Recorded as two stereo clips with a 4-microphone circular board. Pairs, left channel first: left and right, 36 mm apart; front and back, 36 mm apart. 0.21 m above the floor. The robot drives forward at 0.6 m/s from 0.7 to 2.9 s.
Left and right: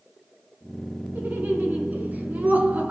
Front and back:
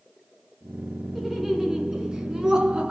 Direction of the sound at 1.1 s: 95° right.